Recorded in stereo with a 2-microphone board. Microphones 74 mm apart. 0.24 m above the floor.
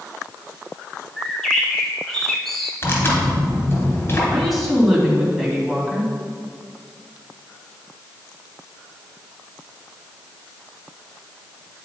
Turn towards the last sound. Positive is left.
turn(degrees=0)  # may be behind; listen again after turning